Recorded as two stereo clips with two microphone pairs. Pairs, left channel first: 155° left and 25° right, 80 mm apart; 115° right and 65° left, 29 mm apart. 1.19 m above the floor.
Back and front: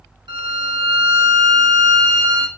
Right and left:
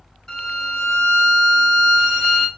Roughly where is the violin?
Ahead right.